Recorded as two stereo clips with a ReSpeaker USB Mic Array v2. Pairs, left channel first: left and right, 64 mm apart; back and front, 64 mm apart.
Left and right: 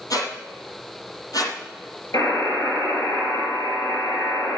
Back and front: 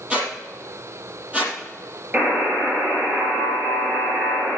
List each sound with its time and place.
0.1 s a squeak: 70° left, 3.5 m
2.1 s a buzzer: 60° left, 5.5 m